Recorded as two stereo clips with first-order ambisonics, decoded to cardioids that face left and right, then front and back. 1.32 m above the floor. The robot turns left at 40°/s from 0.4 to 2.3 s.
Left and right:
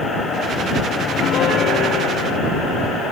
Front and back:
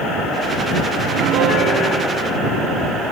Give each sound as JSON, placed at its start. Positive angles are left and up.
{"t": 1.0, "sound": "a piano", "azimuth_deg": 160}